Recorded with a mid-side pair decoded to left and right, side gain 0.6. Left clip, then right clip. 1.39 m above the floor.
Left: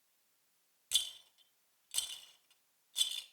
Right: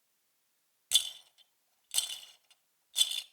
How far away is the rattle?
About 0.6 m.